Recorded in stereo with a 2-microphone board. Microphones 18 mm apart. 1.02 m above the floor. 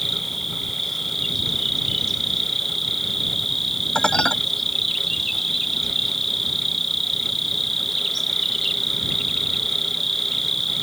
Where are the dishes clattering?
60° left (ahead or behind).